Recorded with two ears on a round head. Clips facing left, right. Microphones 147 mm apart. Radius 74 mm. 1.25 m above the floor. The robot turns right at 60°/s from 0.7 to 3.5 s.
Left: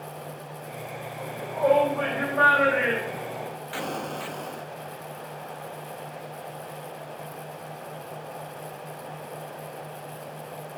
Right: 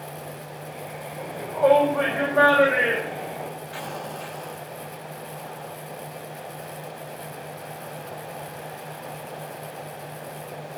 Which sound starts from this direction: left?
An explosion, at 3.7 s.